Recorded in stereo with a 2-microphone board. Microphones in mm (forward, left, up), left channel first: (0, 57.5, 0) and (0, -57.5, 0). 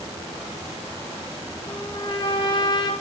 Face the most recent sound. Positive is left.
turn(degrees=40)  # may be behind; listen again after turning